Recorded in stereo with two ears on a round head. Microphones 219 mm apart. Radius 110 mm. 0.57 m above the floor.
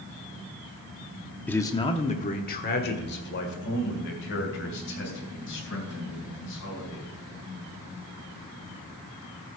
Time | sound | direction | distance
1.5 | a man speaking | 5° left (ahead or behind) | 0.8 m